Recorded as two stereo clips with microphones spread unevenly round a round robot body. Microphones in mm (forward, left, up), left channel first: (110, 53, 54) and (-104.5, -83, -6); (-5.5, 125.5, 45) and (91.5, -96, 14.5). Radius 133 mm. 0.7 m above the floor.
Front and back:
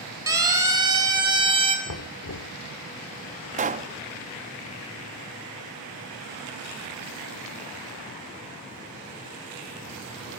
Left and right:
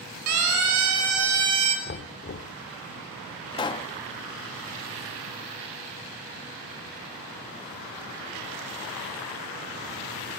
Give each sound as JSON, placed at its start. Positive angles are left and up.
{"t": 0.3, "sound": "a siren", "azimuth_deg": -70, "distance_m": 5.5}
{"t": 1.9, "sound": "knocking", "azimuth_deg": 65, "distance_m": 1.4}
{"t": 3.5, "sound": "a pop", "azimuth_deg": -175, "distance_m": 0.9}